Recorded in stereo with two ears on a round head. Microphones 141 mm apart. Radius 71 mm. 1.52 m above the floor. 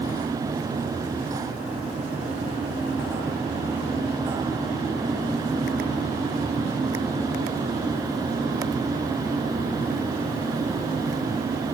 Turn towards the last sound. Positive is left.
No sound to turn to.